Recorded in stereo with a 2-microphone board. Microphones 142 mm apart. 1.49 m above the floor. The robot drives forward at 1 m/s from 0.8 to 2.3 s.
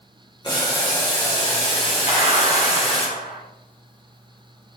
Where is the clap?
65° left (ahead or behind), 7 m.